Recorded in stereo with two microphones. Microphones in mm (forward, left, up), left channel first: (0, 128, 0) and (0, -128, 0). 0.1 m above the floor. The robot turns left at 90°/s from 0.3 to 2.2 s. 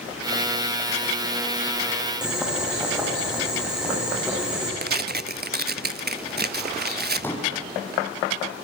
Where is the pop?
5° left (ahead or behind), 4.5 m.